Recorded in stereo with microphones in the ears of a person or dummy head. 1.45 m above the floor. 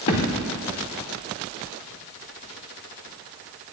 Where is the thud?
25° left (ahead or behind), 1.1 m.